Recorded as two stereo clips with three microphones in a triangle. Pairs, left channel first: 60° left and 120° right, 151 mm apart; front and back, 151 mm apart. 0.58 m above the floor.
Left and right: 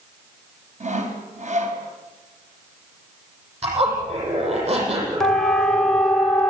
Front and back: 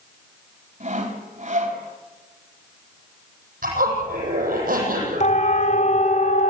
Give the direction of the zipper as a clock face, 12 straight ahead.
6 o'clock.